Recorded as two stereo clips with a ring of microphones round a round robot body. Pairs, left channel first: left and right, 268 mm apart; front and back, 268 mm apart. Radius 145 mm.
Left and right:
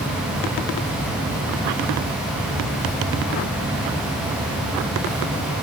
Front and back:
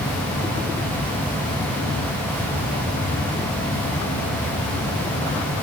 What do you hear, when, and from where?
Only background noise.